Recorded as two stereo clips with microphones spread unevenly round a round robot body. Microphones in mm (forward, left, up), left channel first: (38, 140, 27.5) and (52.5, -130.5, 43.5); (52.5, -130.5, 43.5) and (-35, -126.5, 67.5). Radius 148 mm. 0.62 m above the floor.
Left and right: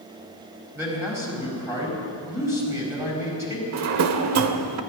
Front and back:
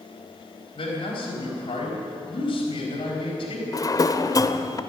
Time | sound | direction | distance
0.8 | a man speaking | 5° right | 4.5 m
3.7 | a drawer | 55° right | 1.0 m